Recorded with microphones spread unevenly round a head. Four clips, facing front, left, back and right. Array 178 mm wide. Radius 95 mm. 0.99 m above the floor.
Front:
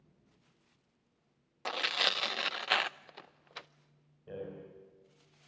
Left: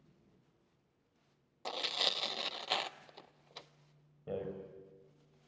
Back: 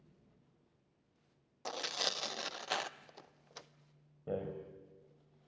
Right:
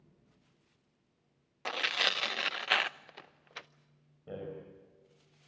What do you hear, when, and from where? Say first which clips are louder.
1.6 s tearing paper: right 5 dB, front 5 dB; 5° right, 0.6 m
4.3 s a rattle: left 2 dB, back 4 dB; 170° left, 4.5 m